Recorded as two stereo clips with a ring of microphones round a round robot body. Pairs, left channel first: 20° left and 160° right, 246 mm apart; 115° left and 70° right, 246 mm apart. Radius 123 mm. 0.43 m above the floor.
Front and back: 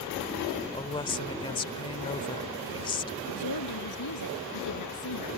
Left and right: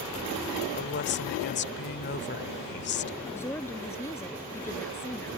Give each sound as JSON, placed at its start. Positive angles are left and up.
{"t": 0.7, "sound": "a woman speaking", "azimuth_deg": 85}
{"t": 3.3, "sound": "a woman speaking", "azimuth_deg": 30}